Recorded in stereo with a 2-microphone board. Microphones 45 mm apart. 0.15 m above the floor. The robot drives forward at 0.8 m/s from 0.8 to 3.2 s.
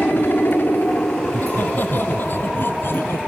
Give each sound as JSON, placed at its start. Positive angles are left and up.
{"t": 0.0, "sound": "a helicopter", "side_deg": 50}
{"t": 1.2, "sound": "laughter", "side_deg": 45}